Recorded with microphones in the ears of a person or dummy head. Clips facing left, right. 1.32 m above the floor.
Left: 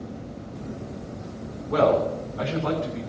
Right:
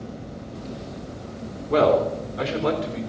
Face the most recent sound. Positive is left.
turn(degrees=-60)  # may be behind; listen again after turning